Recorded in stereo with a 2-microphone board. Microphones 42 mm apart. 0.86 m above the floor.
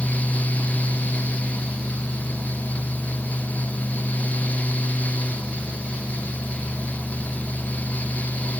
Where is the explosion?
No explosion in this recording.